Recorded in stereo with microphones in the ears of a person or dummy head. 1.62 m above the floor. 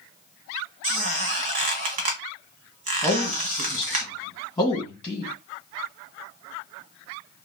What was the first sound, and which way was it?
A squeak, 40° right (ahead or behind).